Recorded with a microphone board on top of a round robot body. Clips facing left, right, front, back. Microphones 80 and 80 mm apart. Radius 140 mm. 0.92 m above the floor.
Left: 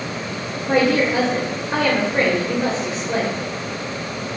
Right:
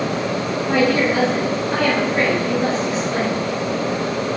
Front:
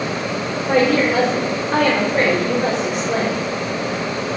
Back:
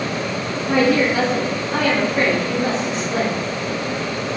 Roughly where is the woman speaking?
Ahead left.